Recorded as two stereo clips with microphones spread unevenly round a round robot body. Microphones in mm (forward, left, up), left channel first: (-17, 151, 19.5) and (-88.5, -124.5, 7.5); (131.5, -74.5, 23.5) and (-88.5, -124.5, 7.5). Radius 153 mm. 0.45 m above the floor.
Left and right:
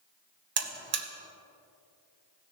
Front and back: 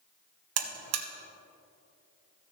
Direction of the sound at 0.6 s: 160° right.